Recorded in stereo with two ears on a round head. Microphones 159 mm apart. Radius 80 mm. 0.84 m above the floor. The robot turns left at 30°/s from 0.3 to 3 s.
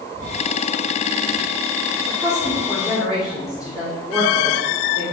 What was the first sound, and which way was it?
A woman speaking, 20° left (ahead or behind).